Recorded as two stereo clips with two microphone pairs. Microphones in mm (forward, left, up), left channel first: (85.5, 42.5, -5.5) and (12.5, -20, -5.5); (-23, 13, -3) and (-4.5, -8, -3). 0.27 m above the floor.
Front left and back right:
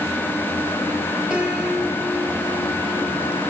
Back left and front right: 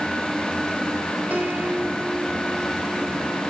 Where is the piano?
55° right, 3 m.